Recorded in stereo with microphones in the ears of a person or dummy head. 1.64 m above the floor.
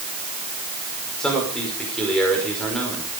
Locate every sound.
1.2 s a man speaking: 5° left (ahead or behind), 5.5 m